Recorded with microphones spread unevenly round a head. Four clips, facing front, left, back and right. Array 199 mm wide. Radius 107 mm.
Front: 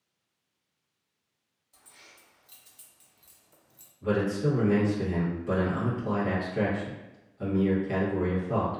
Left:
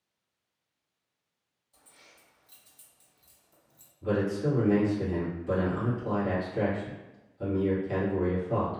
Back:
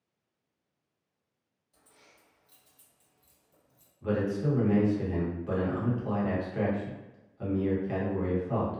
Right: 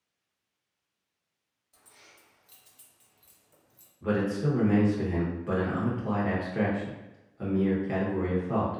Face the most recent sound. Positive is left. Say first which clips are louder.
# even, front 2 dB
turn(degrees=-80)